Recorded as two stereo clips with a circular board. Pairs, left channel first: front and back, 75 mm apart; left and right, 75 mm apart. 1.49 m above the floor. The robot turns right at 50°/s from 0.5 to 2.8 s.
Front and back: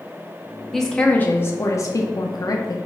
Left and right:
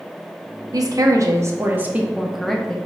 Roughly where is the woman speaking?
Right.